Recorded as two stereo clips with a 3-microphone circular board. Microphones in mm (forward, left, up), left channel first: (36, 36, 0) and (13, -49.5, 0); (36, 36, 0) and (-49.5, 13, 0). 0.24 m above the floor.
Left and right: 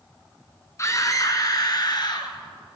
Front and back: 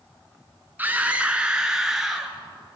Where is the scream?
125° left, 3.5 m; by 2.4 s 105° left, 4.5 m.